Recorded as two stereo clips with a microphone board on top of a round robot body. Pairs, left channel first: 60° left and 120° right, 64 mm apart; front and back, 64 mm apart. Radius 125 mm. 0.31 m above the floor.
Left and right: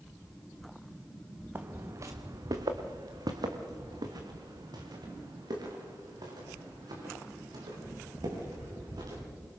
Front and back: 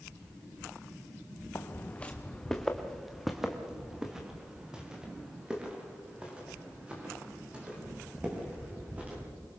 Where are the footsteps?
55° right, 1.3 m; by 9.2 s 110° right, 9 m.